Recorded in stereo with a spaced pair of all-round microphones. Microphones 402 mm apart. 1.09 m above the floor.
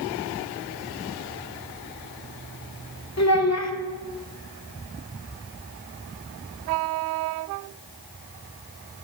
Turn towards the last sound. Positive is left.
turn(degrees=40)  # may be behind; listen again after turning